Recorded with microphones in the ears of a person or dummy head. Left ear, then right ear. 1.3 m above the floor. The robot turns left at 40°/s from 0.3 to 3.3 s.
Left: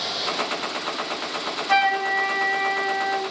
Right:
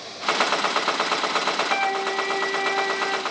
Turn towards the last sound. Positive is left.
turn(degrees=-5)